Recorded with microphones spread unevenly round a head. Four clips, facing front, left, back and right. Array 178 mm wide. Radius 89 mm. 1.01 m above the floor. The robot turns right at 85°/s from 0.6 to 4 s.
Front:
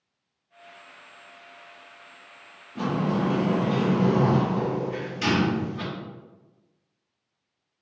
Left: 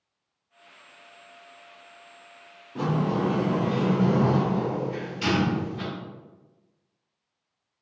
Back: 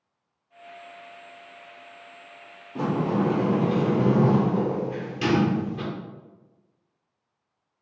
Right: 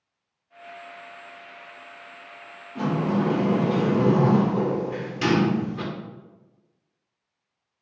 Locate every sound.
2.8 s a sliding door: 150° left, 0.8 m; by 5.8 s 105° right, 0.8 m